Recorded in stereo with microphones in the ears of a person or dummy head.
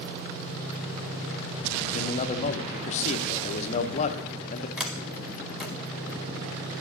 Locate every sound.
1.9 s a man speaking: 35° left (ahead or behind), 0.7 m
4.8 s a sliding door: centre (ahead or behind), 0.8 m